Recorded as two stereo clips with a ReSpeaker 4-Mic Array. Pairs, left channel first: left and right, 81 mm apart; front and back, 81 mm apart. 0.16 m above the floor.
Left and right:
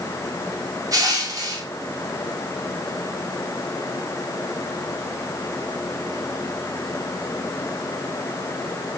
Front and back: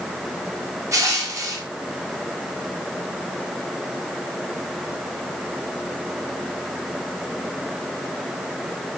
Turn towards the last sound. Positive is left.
turn(degrees=-135)